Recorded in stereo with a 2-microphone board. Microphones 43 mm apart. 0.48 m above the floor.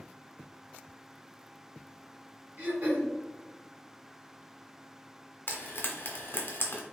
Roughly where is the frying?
Left.